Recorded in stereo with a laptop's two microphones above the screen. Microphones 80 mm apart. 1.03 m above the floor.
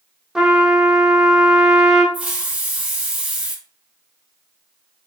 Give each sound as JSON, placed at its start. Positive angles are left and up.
{"t": 0.3, "sound": "a trumpet", "side_deg": -10, "distance_m": 0.7}
{"t": 2.1, "sound": "a hiss", "side_deg": -15, "distance_m": 0.7}